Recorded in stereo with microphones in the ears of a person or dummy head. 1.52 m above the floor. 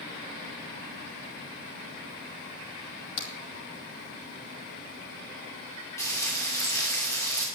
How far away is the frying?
About 2.5 m.